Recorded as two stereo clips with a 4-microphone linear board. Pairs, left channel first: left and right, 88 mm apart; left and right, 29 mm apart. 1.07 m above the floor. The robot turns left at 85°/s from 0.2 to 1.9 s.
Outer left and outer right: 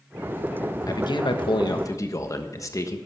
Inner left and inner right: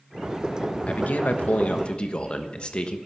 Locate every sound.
0.9 s a man speaking: 130° left, 1.2 m; by 3.0 s 40° left, 1.2 m